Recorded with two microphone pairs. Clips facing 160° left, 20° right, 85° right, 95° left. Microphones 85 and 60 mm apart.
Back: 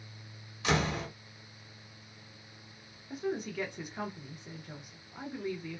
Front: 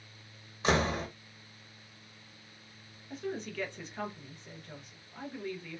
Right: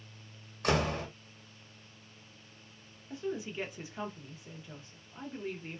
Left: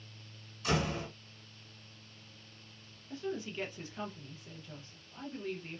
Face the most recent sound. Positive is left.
turn(degrees=-135)